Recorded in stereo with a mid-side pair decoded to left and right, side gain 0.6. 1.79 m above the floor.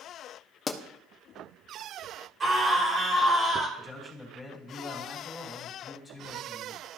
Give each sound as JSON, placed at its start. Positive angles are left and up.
{"t": 0.7, "sound": "a pop", "azimuth_deg": 25, "distance_m": 1.1}
{"t": 2.4, "sound": "a scream", "azimuth_deg": -30, "distance_m": 2.5}
{"t": 3.8, "sound": "a man speaking", "azimuth_deg": 20, "distance_m": 3.5}